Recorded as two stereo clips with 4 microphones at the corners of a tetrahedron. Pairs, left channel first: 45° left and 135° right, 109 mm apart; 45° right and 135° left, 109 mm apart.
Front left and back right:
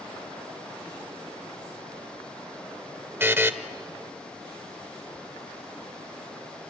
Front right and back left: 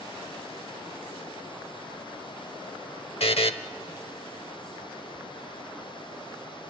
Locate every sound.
3.2 s a buzzer: 65° right, 0.8 m